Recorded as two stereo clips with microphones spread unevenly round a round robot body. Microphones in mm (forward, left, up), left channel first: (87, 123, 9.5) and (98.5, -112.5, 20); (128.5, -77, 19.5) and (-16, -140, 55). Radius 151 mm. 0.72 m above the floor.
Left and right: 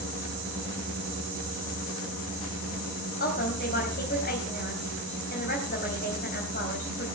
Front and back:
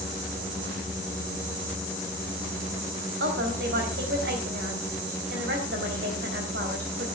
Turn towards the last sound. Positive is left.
turn(degrees=155)